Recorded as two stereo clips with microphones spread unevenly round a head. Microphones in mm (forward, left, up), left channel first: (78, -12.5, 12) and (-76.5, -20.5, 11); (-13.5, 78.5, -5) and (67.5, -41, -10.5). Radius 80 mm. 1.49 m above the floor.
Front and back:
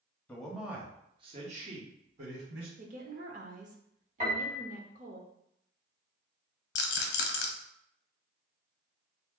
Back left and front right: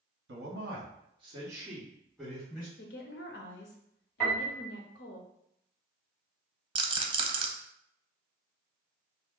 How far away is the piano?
About 1.6 m.